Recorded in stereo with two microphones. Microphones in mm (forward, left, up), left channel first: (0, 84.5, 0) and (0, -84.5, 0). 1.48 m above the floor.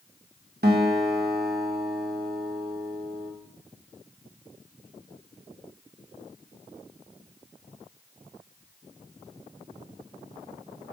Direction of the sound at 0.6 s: 70° right (ahead or behind).